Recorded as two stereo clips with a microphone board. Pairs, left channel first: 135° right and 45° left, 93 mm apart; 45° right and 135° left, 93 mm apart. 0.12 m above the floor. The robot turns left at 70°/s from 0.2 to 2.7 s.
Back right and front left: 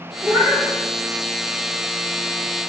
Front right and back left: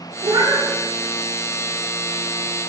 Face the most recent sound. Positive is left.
turn(degrees=-60)